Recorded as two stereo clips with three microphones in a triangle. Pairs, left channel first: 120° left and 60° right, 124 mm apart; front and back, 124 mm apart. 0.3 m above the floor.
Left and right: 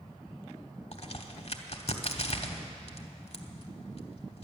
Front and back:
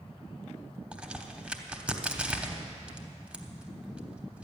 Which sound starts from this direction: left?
A crack, at 0.9 s.